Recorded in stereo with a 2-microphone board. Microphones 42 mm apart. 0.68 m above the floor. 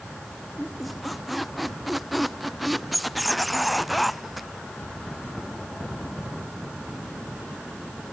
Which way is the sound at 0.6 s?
5° right (ahead or behind).